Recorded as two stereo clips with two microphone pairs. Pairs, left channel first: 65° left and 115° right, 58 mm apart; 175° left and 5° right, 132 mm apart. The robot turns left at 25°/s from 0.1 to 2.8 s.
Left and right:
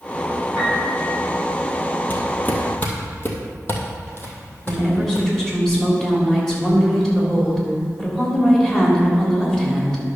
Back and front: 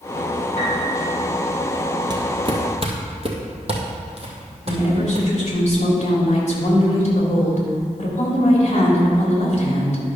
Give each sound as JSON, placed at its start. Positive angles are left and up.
{"t": 0.6, "sound": "a piano", "azimuth_deg": 150, "distance_m": 4.0}
{"t": 2.1, "sound": "footsteps", "azimuth_deg": 30, "distance_m": 1.4}
{"t": 4.7, "sound": "a woman speaking", "azimuth_deg": 140, "distance_m": 3.0}